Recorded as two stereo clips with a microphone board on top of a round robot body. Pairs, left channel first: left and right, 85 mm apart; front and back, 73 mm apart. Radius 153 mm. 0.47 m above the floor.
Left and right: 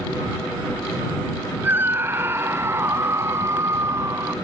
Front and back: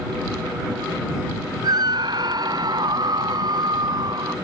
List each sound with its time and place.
1.6 s a scream: 160° right; by 4.3 s 150° right